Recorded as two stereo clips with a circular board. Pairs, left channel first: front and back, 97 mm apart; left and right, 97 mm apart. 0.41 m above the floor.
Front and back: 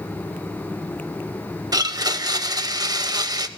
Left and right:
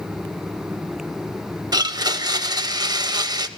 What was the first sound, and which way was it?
A blender, 135° right.